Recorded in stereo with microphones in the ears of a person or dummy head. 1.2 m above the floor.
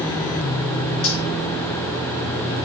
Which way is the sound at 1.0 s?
75° left (ahead or behind).